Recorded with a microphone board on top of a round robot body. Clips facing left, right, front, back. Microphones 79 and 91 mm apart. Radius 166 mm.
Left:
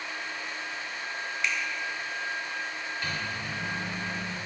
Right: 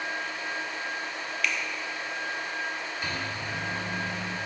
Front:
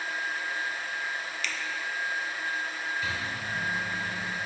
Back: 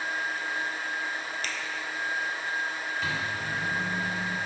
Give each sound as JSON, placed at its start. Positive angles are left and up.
{"t": 1.4, "sound": "a finger snap", "azimuth_deg": 145, "distance_m": 0.6}
{"t": 3.0, "sound": "a microwave", "azimuth_deg": -165, "distance_m": 1.3}